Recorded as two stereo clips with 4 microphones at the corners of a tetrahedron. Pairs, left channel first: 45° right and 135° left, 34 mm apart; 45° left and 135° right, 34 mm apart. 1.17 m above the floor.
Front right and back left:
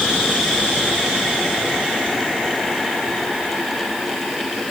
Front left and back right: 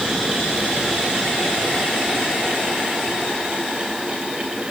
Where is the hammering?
I don't hear hammering.